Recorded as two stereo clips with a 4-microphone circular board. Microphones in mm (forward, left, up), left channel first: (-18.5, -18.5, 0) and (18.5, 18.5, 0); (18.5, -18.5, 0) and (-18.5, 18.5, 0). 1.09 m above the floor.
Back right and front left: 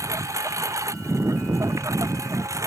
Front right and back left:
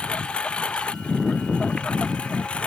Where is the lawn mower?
25° left.